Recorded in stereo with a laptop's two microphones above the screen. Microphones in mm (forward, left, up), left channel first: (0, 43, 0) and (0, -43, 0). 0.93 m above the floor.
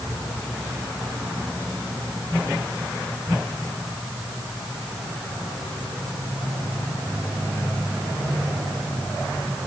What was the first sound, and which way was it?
Only background noise.